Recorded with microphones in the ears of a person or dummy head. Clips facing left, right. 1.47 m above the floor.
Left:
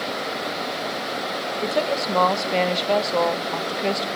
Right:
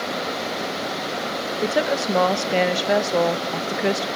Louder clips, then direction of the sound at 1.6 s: Right 2 dB; 15° right (ahead or behind).